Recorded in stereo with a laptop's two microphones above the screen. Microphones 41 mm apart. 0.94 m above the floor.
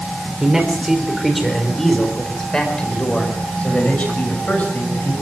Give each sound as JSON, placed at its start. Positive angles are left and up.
{"t": 0.4, "sound": "a man speaking", "side_deg": -15, "distance_m": 4.0}